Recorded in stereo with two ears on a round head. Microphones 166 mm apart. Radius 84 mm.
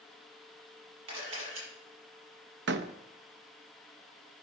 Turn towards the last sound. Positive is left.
turn(degrees=-65)  # may be behind; listen again after turning